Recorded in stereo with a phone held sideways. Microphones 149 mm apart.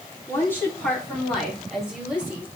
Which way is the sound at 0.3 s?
15° left (ahead or behind).